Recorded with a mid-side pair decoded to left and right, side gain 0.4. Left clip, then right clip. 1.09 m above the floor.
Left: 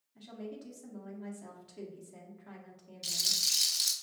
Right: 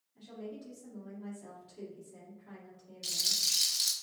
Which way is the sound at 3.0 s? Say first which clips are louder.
Even; 10° left.